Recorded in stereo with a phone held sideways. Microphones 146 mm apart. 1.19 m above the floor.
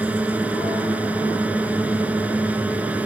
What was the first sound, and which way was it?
A drone, 10° right (ahead or behind).